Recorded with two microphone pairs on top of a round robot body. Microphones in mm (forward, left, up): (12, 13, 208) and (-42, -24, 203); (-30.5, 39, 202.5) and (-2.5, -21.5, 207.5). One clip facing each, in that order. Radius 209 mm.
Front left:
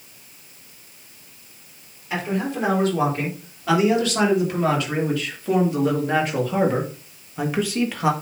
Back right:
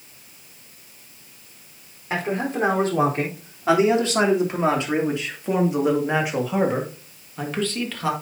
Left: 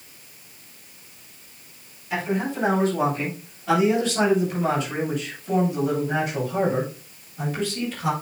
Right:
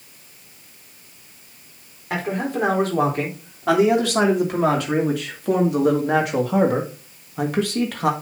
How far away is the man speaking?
About 4 m.